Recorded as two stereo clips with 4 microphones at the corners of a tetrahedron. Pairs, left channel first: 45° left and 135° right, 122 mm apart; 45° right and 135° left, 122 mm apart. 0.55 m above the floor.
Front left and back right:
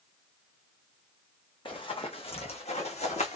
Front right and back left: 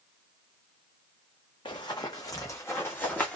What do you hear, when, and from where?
1.6 s running footsteps: straight ahead, 1.5 m; by 3.4 s 35° left, 1.6 m